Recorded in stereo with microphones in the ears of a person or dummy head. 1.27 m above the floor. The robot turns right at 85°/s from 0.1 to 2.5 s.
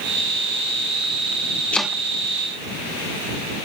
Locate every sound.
1.7 s chopping: 5° left (ahead or behind); by 2.0 s 20° right (ahead or behind)